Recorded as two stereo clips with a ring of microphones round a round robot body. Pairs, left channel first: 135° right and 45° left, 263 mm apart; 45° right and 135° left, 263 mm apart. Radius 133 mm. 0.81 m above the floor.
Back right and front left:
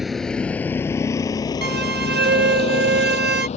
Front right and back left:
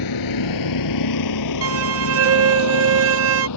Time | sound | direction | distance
0.0 | a vehicle | 45° right | ?
1.6 | a violin | 95° left | ?